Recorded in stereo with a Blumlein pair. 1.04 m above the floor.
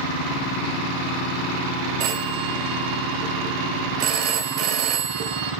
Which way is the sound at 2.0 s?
40° right.